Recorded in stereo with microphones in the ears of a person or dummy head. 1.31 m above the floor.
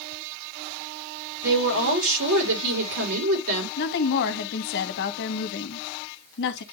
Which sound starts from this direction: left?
A woman speaking, at 3.8 s.